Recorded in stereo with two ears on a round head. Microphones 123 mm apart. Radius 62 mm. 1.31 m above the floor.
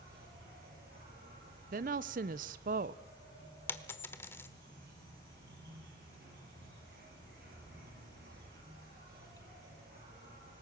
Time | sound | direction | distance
0.0 | an insect | 80° right | 7 m
1.7 | a woman speaking | 65° right (ahead or behind) | 0.8 m
3.7 | a dropped coin | 15° left (ahead or behind) | 1.2 m